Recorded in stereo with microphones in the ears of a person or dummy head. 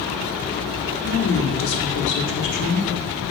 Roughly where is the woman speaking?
Left.